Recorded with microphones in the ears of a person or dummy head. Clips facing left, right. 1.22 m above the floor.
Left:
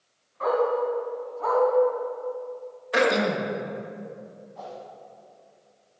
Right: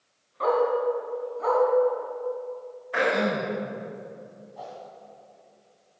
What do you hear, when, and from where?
0.4 s a dog barking: 50° right (ahead or behind), 2.5 m; by 1.6 s 25° right (ahead or behind), 2.5 m
2.9 s throat clearing: 45° left (ahead or behind), 1.1 m
4.5 s a whoosh: 10° right (ahead or behind), 1.9 m